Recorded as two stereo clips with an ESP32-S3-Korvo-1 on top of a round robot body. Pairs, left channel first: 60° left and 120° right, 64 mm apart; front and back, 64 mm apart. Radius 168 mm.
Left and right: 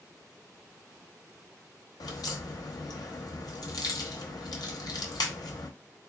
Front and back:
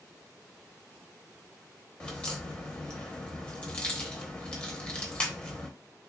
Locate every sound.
2.0 s a crack: 75° left, 0.9 m